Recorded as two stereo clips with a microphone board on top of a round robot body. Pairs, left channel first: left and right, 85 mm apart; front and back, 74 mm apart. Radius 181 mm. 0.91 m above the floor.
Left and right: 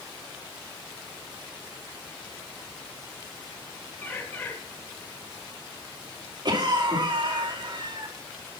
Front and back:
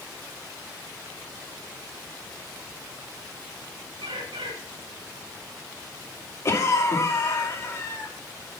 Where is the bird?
160° left, 0.6 m.